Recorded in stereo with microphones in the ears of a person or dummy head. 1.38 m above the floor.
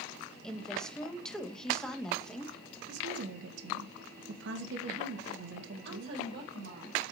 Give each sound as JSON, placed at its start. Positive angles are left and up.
{"t": 0.4, "sound": "a woman speaking", "side_deg": 0, "distance_m": 1.5}
{"t": 2.9, "sound": "a woman speaking", "side_deg": -65, "distance_m": 1.6}
{"t": 5.8, "sound": "a woman speaking", "side_deg": -75, "distance_m": 4.5}